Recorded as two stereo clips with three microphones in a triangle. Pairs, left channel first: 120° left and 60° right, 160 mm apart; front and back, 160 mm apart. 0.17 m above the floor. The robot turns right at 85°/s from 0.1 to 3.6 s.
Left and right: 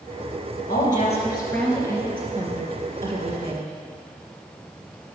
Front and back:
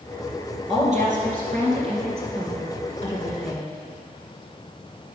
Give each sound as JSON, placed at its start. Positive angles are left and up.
{"t": 0.7, "sound": "a woman speaking", "azimuth_deg": 125, "distance_m": 3.0}